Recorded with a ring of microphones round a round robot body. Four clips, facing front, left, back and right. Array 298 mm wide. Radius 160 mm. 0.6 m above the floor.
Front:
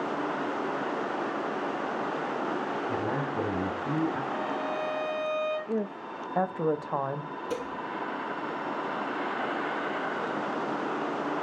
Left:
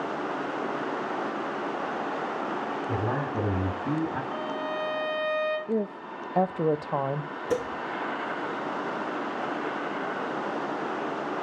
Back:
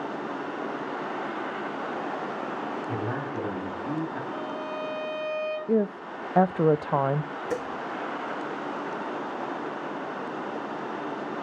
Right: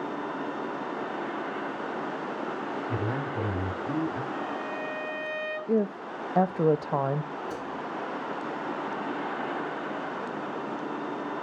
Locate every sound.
2.9 s a man speaking: 95° left, 6.5 m; by 4.2 s 85° left, 6.5 m
4.3 s a violin: 95° left, 5 m
5.7 s a woman speaking: 165° right, 0.6 m
7.5 s dishes clattering: 105° left, 1.3 m